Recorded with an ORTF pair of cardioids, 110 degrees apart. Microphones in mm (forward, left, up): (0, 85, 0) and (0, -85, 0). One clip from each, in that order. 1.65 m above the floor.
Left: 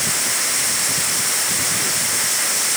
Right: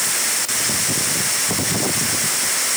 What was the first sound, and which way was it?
Only background noise.